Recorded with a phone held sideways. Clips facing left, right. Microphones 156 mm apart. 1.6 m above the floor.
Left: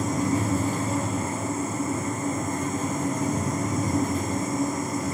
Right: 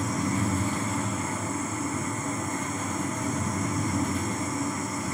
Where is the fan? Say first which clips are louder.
Left 3 dB; 40° left (ahead or behind), 1.2 m.